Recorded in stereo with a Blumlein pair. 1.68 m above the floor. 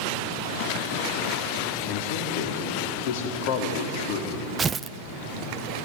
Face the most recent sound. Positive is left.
turn(degrees=-20)